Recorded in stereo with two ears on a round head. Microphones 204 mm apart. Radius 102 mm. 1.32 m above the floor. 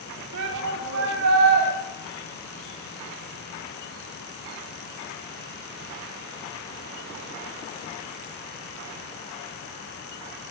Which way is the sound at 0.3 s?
70° right (ahead or behind).